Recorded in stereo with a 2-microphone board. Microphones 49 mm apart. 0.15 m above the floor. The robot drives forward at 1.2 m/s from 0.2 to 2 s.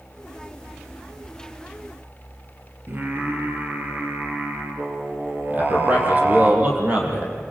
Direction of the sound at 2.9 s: 40° right (ahead or behind).